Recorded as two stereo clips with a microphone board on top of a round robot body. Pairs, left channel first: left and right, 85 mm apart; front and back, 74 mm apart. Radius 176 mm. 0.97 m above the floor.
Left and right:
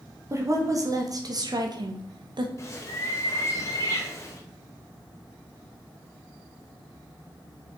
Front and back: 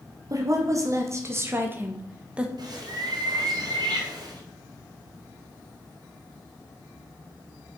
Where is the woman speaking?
140° right, 2.5 m; by 2.5 s 105° right, 1.7 m.